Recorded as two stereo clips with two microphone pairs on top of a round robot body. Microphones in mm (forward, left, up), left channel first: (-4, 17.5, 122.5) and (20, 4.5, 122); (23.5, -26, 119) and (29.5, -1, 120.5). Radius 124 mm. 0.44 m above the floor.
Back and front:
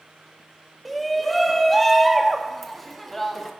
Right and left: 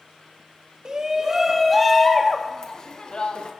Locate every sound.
0.8 s a shout: 60° left, 1.5 m; by 3.5 s 125° right, 2 m